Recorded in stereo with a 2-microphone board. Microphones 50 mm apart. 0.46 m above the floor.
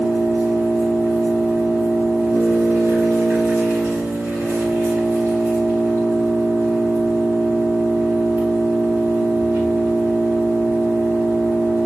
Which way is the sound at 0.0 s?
50° right (ahead or behind).